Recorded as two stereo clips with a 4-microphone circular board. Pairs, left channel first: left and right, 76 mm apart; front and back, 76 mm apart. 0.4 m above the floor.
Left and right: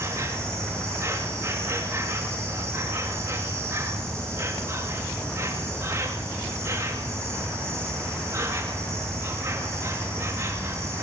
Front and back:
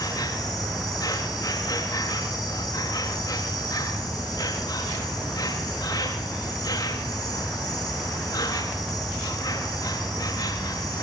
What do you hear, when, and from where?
0.0 s an insect: 30° right, 9.5 m